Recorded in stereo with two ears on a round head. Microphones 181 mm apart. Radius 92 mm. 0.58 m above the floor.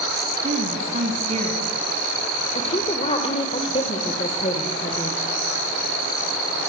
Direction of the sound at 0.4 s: 35° right (ahead or behind).